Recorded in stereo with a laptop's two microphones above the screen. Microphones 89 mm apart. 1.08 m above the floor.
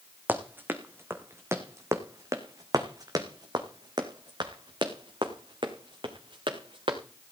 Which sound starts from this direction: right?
Running footsteps, at 0.3 s.